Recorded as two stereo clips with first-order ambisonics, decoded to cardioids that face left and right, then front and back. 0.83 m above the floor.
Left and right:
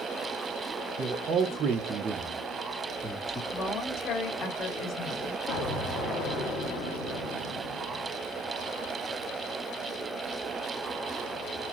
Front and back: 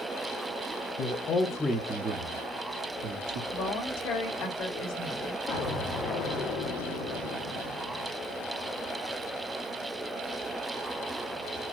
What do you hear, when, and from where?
1.0 s a man speaking: 40° right, 0.8 m; by 3.4 s 175° left, 1.4 m
3.5 s a woman speaking: 40° left, 2.0 m
5.5 s an explosion: 50° left, 1.3 m